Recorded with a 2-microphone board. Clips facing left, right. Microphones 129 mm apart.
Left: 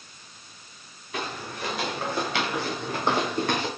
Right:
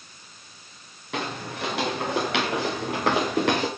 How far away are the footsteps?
About 7 m.